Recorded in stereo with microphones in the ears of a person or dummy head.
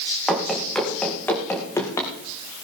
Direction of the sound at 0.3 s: Centre (ahead or behind).